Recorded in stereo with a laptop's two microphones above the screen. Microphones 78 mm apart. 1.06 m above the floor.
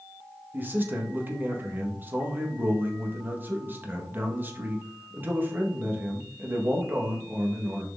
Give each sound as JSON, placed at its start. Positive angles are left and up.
{"t": 0.5, "sound": "a man speaking", "side_deg": -25, "distance_m": 1.6}